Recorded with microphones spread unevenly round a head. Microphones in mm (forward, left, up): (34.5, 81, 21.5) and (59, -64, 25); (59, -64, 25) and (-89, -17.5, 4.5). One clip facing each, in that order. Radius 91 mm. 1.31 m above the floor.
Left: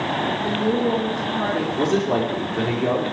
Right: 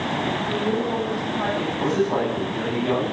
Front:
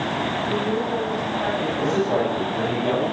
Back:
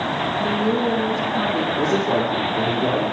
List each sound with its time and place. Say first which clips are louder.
0.4 s a woman speaking: left 5 dB, back 5 dB; 150° left, 2 m
1.8 s a man speaking: left 1 dB, even; 125° left, 5 m